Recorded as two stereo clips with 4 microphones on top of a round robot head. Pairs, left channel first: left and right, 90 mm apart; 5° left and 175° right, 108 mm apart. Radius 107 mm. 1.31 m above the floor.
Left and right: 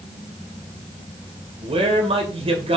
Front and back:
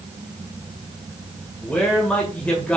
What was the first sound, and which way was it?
A man speaking, 75° right.